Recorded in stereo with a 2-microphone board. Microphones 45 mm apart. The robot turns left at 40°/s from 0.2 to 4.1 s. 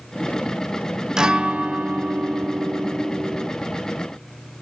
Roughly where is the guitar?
Ahead.